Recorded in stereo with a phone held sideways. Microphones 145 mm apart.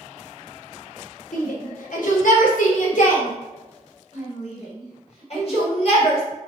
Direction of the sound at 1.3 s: 80° left.